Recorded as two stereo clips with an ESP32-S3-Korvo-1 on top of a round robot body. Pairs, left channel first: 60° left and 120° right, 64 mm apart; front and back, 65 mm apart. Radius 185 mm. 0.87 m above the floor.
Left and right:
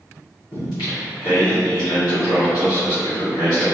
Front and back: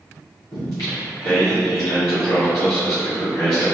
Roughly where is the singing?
Ahead left.